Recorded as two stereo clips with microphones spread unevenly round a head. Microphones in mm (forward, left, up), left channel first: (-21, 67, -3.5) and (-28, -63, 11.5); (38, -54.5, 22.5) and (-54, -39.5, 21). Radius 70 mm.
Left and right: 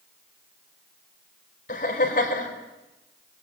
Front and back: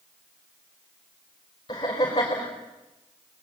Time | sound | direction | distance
1.7 | laughter | 50° left | 5 m